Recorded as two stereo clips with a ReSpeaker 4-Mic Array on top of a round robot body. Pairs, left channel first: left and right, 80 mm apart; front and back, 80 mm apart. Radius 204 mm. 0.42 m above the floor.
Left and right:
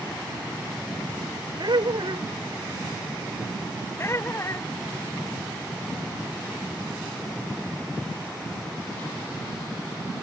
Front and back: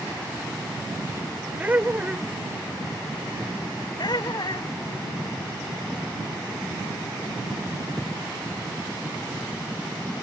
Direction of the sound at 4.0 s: 30° left.